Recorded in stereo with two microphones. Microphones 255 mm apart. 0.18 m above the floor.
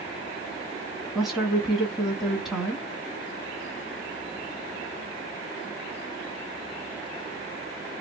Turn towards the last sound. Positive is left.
turn(degrees=0)  # may be behind; listen again after turning